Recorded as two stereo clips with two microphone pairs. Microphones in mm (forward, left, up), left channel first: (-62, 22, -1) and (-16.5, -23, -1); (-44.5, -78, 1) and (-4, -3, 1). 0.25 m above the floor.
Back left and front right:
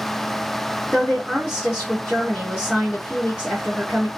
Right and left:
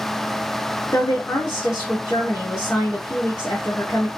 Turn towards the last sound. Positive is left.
turn(degrees=-125)